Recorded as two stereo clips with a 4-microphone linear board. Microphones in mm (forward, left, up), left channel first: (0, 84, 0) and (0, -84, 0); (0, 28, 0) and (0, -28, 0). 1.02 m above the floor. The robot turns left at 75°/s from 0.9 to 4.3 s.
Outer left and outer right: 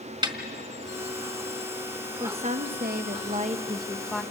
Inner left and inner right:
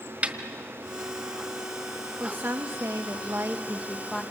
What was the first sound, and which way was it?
A snare drum, 25° right (ahead or behind).